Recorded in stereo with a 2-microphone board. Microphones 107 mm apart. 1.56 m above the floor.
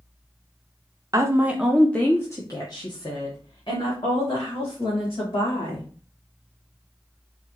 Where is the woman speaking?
35° right (ahead or behind), 0.6 m; by 5.9 s 65° left (ahead or behind), 3 m.